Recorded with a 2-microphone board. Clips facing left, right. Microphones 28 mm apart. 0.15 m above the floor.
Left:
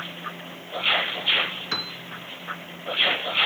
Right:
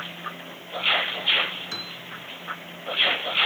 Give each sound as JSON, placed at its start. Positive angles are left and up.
{"t": 1.7, "sound": "a piano", "side_deg": 35, "distance_m": 0.6}